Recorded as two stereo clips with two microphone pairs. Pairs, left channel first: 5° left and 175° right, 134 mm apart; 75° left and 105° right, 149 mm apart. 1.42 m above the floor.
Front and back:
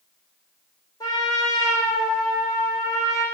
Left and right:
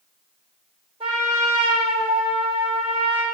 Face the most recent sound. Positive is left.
turn(degrees=-60)